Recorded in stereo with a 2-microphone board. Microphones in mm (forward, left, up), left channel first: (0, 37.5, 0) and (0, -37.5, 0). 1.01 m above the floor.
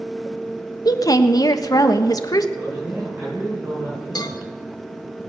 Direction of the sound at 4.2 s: 60° left (ahead or behind).